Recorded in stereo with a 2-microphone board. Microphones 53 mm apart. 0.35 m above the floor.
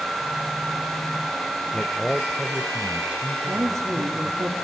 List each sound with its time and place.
1.7 s a man speaking: 20° left (ahead or behind), 1.0 m; by 4.5 s 40° right (ahead or behind), 2.5 m
3.5 s a woman speaking: 75° right (ahead or behind), 4.5 m